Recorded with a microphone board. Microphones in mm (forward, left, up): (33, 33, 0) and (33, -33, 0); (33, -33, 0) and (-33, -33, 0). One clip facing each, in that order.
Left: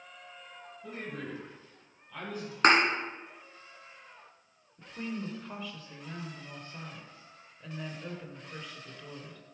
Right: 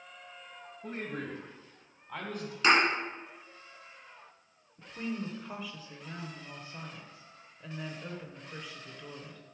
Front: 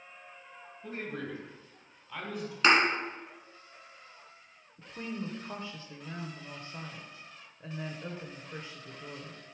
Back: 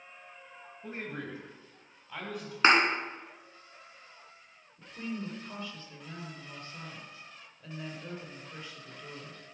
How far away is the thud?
About 2 m.